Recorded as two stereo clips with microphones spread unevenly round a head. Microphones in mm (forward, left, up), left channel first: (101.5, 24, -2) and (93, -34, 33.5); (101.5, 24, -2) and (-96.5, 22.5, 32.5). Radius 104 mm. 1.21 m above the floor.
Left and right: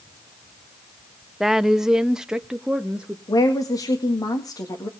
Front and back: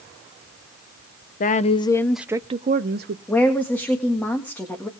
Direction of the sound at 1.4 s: 15° left.